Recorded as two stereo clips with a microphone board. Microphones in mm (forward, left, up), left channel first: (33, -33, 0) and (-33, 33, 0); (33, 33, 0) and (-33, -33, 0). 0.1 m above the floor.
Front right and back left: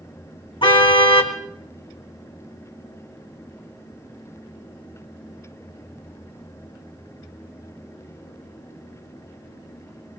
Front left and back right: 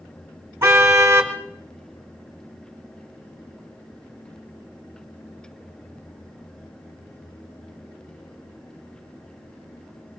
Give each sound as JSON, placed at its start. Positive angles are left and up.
{"t": 0.6, "sound": "a car horn", "azimuth_deg": -70, "distance_m": 3.0}